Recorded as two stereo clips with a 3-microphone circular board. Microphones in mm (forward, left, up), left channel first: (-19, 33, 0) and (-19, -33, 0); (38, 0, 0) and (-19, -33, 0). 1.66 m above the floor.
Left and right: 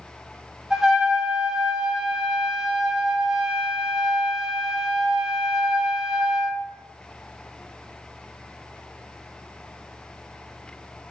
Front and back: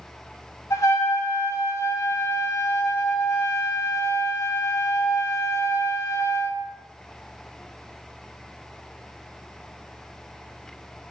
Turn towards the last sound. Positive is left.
turn(degrees=-10)